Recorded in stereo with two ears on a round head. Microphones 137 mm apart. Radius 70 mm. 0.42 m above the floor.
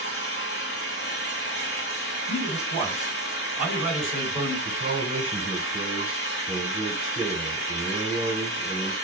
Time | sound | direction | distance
0.0 | an engine running | 80° left | 1.4 m
2.3 | a man speaking | 35° left (ahead or behind) | 2 m
4.7 | a man speaking | 35° right (ahead or behind) | 1.4 m